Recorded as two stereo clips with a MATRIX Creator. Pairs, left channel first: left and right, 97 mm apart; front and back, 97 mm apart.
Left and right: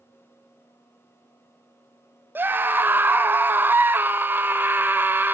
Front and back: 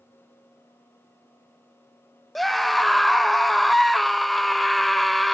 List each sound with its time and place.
2.4 s a scream: 85° right, 0.9 m